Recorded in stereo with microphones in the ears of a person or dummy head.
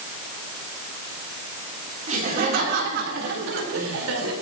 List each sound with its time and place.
2.1 s laughter: 40° right (ahead or behind), 4 m; by 4.3 s 80° right, 5 m